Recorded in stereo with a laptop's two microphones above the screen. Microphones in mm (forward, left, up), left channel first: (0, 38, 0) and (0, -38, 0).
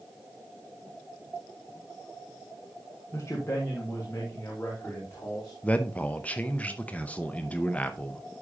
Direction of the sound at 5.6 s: 20° left (ahead or behind).